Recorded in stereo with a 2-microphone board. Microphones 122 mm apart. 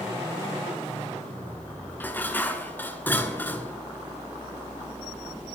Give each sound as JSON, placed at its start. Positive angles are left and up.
{"t": 2.0, "sound": "dishes clattering", "side_deg": 15, "distance_m": 0.9}